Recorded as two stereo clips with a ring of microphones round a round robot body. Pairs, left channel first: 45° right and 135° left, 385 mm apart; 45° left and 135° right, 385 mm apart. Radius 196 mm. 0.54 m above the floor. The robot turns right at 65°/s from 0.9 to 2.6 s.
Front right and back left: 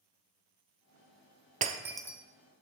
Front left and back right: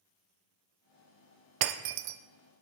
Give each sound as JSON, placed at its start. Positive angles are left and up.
{"t": 1.6, "sound": "breaking glass", "azimuth_deg": -160, "distance_m": 0.5}